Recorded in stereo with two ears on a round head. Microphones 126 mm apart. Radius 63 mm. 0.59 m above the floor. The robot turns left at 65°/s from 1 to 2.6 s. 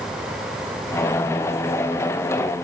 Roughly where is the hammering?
I don't hear hammering.